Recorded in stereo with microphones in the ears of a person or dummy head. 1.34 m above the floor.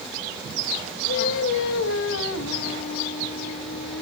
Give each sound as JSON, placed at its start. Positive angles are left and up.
{"t": 1.1, "sound": "singing", "side_deg": 80, "distance_m": 1.3}